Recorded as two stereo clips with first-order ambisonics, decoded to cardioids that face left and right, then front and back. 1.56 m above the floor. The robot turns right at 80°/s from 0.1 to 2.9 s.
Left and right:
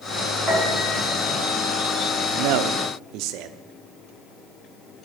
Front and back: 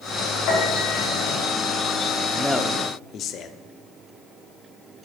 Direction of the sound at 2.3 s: 105° right.